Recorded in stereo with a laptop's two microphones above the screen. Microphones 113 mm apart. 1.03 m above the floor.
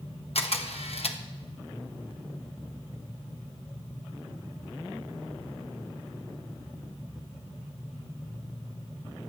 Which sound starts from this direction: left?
A camera shutter, at 0.3 s.